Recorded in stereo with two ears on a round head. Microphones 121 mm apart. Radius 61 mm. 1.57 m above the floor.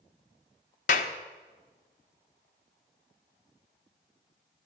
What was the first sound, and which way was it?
A clap, 65° left (ahead or behind).